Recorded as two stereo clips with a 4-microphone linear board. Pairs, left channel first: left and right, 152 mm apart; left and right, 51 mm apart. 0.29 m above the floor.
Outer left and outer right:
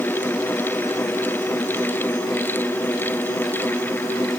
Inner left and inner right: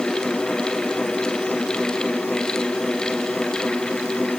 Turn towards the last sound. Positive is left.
No sound to turn to.